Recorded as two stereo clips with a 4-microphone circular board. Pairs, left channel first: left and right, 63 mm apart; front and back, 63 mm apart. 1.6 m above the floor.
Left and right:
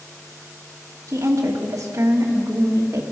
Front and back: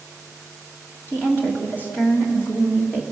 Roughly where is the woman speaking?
Ahead right.